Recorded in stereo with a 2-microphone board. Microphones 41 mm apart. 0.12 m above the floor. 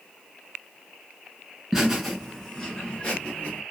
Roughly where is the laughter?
Centre.